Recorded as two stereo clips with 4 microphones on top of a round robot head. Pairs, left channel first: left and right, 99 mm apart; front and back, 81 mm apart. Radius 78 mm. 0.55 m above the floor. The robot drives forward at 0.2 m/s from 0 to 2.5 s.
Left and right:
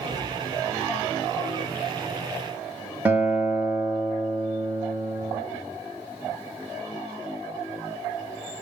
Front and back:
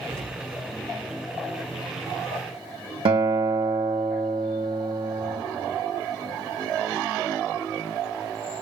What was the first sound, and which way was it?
An explosion, 170° right.